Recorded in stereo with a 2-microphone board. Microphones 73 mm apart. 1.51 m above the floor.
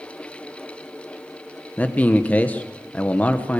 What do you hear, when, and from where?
1.8 s a man speaking: 20° left (ahead or behind), 1.2 m